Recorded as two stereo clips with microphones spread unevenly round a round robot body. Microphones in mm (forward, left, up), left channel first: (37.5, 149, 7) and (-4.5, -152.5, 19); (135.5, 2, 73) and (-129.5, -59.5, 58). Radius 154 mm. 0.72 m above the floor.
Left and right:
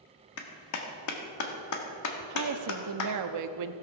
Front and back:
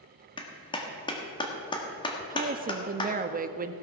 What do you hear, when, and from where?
0.4 s a clap: 85° left, 1.5 m
2.3 s a woman speaking: 115° right, 0.8 m